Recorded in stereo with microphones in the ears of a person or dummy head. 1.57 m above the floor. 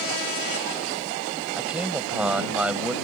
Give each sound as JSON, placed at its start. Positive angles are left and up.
{"t": 1.6, "sound": "a man speaking", "side_deg": -5}